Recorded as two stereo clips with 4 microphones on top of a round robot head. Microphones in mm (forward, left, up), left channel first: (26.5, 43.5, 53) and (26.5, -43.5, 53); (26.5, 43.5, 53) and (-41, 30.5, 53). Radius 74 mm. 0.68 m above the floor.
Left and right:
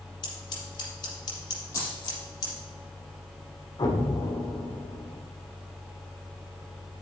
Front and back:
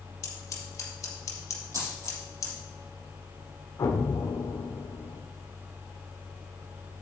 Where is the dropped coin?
150° left, 5 m.